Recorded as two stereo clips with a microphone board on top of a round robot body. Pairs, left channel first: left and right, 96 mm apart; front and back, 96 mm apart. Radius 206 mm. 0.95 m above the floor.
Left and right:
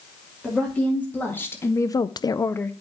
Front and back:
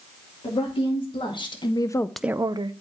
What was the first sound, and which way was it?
A woman speaking, 15° left.